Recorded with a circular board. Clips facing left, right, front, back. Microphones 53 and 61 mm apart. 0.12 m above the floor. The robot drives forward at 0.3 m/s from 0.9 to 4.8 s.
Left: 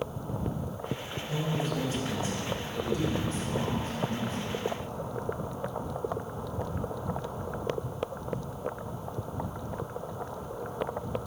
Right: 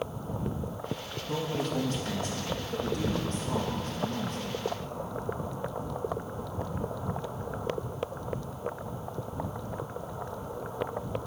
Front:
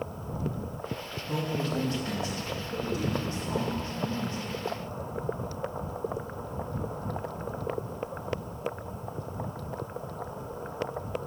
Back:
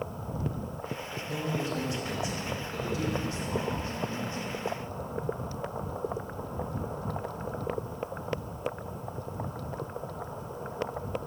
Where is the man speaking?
50° right, 5.5 m; by 4.6 s 60° right, 4.5 m.